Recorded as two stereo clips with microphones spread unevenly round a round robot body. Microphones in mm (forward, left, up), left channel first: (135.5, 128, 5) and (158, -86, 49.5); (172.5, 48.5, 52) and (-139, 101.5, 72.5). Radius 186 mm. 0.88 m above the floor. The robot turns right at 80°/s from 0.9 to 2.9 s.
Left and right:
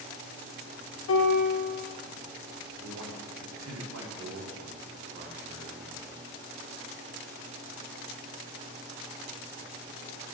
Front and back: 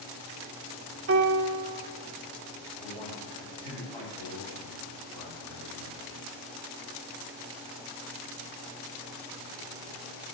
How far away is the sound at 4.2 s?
About 3 m.